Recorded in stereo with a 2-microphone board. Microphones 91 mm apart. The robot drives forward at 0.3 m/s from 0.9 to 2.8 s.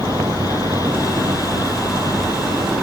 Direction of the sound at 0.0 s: 55° right (ahead or behind).